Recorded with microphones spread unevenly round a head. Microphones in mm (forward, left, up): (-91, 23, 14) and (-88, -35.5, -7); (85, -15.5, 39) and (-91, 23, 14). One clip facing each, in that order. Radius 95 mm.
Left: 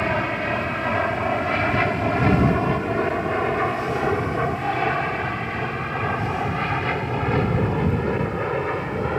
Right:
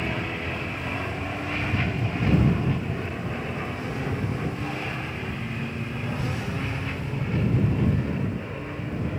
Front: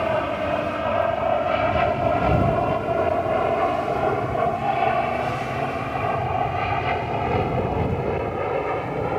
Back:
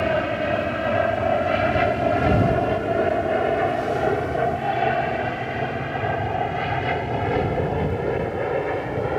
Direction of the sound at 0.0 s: 100° left.